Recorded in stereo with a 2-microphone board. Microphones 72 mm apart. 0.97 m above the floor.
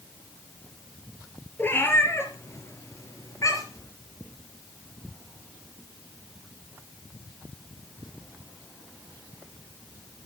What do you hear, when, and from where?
1.6 s a cat meowing: 30° left (ahead or behind), 3.5 m; by 3.9 s 50° left (ahead or behind), 4 m